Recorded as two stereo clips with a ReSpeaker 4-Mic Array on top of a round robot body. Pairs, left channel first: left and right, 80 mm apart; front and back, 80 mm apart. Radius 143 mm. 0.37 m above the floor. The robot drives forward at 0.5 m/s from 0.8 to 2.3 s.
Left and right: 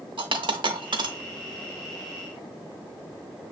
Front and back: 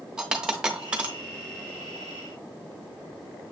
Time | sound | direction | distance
0.2 | a dropped coin | 100° right | 1.0 m